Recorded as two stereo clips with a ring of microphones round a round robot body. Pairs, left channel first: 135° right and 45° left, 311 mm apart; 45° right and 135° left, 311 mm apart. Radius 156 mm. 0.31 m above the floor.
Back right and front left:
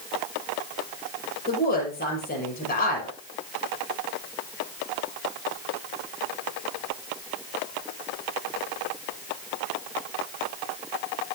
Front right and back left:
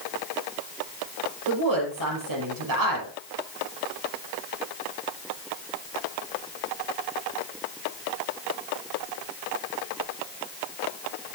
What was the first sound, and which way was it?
A woman speaking, 160° left.